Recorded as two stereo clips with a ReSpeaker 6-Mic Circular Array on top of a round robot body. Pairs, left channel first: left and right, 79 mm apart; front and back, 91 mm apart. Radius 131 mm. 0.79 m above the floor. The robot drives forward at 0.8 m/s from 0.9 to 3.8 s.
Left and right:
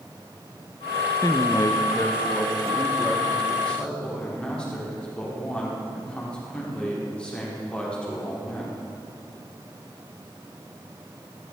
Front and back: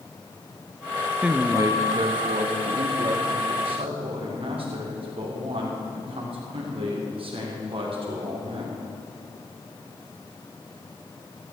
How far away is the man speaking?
About 0.7 m.